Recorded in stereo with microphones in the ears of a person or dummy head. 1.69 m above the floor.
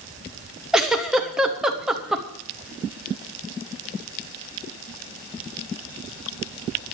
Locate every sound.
0.7 s a giggle: 5° right (ahead or behind), 1.3 m